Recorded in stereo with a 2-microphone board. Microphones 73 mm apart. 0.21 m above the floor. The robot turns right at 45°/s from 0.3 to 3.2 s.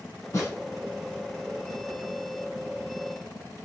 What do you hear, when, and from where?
0.3 s a snare drum: 35° left (ahead or behind), 1.7 m